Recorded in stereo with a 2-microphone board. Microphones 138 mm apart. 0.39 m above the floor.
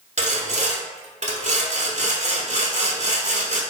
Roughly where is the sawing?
Right.